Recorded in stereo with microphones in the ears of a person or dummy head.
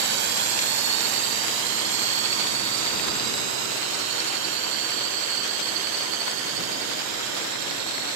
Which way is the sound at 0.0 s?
60° right (ahead or behind).